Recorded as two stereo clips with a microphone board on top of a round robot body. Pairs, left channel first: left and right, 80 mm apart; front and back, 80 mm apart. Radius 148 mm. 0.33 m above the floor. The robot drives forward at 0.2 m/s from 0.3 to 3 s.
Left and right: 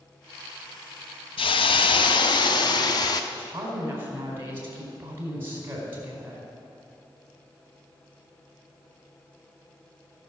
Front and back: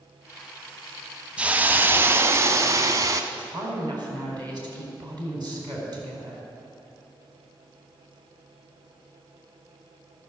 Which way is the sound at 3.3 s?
150° right.